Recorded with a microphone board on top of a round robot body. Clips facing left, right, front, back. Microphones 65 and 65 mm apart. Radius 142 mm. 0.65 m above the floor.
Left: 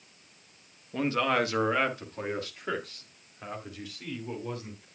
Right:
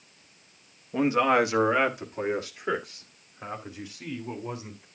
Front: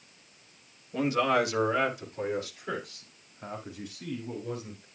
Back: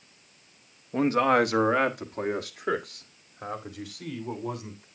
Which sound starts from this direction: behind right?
A man speaking, at 0.9 s.